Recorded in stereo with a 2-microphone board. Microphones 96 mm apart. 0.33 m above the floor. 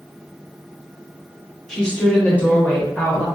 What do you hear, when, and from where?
1.7 s a woman speaking: 5° left (ahead or behind), 1.0 m; by 3.2 s 20° left (ahead or behind), 0.9 m